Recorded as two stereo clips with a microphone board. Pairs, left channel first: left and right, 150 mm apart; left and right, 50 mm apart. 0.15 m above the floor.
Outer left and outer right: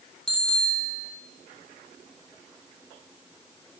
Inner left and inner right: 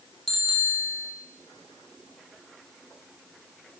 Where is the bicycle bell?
5° left (ahead or behind), 4 m.